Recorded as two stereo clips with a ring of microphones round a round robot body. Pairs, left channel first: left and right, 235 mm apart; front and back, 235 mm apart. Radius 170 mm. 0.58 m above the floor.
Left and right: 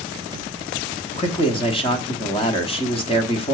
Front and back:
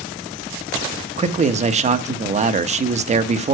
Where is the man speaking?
140° left, 1.0 m.